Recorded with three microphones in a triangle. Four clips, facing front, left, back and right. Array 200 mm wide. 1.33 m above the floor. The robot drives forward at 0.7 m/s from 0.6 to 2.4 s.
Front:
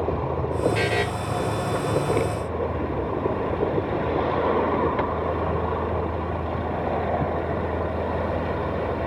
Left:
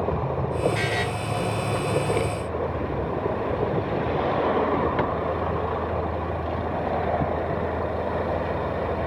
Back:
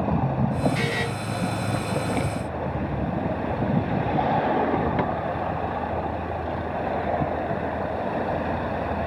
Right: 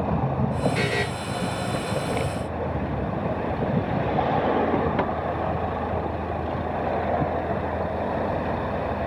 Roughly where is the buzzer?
Ahead.